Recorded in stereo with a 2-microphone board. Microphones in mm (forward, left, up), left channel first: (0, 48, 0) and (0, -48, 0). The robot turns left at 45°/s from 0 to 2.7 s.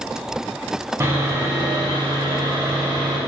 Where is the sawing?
35° right, 3 m; by 3.2 s 110° right, 3 m.